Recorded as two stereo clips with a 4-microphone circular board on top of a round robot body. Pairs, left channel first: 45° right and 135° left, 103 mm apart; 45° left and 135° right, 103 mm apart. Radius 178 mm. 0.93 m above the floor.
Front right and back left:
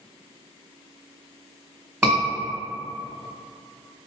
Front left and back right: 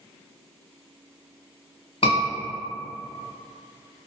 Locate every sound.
2.0 s a scream: 55° left, 1.7 m